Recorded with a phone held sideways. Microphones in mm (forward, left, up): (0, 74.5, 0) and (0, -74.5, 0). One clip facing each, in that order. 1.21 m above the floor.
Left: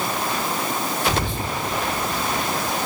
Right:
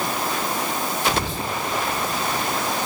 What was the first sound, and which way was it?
Whispering, 55° left (ahead or behind).